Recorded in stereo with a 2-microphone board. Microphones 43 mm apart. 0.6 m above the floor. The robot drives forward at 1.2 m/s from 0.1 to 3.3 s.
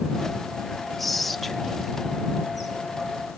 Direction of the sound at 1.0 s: Centre (ahead or behind).